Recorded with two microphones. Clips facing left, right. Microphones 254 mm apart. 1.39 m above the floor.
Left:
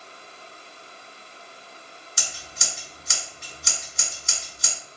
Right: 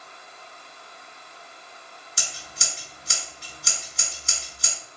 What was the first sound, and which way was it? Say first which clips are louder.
Scissors: even; 35° right (ahead or behind).